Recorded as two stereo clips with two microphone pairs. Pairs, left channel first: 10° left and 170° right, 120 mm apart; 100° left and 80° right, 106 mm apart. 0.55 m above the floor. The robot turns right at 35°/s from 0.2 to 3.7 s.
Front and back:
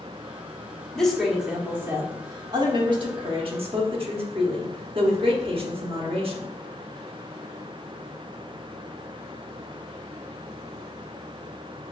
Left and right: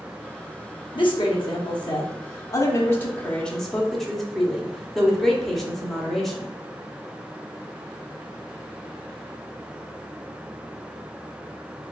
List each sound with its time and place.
0.9 s a woman speaking: 90° left, 1.0 m; by 6.5 s 170° right, 1.0 m